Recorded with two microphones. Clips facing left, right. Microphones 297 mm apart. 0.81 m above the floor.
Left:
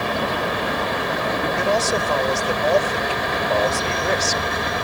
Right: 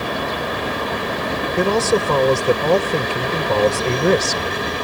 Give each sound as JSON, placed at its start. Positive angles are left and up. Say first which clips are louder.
{"t": 1.6, "sound": "a man speaking", "louder": "right 9 dB", "side_deg": -65}